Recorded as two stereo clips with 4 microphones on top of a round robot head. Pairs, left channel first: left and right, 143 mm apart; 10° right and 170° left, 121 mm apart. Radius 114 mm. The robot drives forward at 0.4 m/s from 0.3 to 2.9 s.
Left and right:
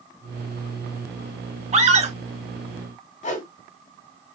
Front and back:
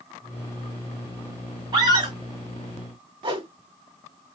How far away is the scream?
About 1.8 m.